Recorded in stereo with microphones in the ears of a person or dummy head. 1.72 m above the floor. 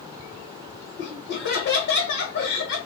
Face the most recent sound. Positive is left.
turn(degrees=60)  # may be behind; listen again after turning